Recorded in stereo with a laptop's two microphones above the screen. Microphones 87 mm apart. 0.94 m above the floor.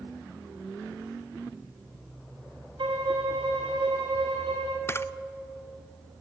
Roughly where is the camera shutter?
Left.